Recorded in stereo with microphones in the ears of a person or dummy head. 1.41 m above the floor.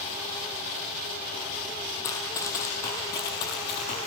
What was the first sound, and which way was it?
Running footsteps, 15° left (ahead or behind).